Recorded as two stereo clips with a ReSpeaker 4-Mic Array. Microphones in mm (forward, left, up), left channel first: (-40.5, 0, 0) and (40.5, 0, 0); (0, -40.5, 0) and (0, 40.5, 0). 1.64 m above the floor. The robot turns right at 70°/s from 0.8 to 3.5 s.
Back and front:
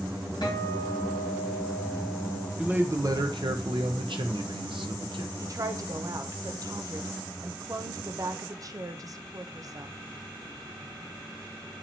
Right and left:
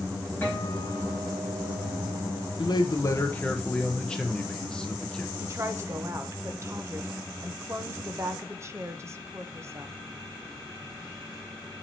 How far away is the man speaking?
About 1.0 m.